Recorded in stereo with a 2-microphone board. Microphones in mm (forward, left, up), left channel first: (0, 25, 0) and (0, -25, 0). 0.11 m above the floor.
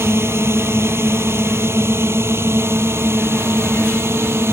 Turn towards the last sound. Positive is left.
turn(degrees=-60)  # may be behind; listen again after turning